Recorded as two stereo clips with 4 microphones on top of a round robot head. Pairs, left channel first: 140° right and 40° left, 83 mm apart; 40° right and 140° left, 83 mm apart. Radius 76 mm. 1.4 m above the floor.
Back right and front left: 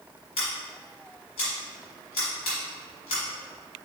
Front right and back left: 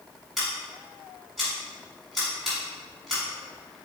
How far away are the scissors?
About 1.9 m.